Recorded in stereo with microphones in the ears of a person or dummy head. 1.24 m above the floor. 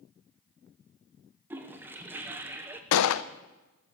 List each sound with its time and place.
1.5 s a toilet flushing: 10° right (ahead or behind), 0.8 m
2.9 s a gunshot: 75° left (ahead or behind), 0.6 m